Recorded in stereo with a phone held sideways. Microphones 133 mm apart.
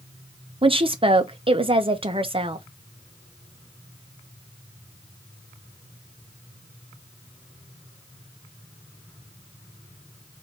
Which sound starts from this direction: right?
A woman speaking, at 0.6 s.